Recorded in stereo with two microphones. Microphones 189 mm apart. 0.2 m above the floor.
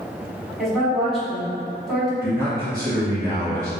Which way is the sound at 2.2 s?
20° right (ahead or behind).